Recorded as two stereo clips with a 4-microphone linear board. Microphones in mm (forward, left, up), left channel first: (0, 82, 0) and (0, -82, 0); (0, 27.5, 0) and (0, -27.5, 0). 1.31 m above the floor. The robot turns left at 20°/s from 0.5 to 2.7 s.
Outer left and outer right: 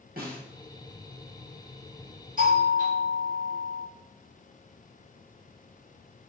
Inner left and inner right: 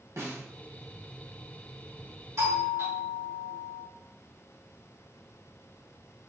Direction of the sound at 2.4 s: 55° right (ahead or behind).